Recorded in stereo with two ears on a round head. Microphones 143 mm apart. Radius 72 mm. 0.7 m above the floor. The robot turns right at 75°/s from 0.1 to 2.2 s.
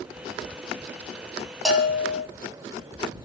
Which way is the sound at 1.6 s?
Straight ahead.